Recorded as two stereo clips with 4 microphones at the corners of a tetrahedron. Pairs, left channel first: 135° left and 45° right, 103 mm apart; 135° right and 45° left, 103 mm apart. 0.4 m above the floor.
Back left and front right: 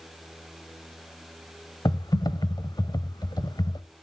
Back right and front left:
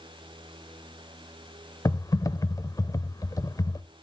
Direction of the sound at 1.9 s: 175° left.